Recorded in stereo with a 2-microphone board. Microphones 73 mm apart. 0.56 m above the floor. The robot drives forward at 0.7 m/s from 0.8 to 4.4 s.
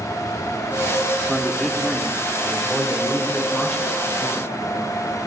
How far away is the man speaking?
About 1.3 m.